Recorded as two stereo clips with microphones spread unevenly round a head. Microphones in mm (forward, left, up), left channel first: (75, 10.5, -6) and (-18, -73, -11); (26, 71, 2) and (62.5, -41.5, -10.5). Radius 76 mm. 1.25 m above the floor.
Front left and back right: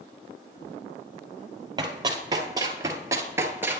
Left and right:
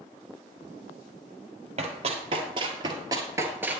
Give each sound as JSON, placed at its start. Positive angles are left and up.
{"t": 1.8, "sound": "running footsteps", "azimuth_deg": -90, "distance_m": 1.7}